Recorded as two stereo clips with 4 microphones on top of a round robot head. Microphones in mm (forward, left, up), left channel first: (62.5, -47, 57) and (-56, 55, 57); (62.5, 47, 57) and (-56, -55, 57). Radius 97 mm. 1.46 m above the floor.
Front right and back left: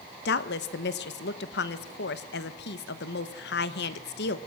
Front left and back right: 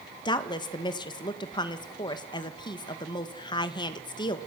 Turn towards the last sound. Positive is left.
turn(degrees=-25)